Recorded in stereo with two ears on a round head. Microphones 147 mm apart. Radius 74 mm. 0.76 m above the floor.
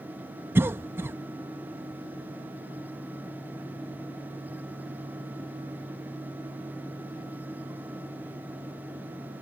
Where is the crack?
No crack in this recording.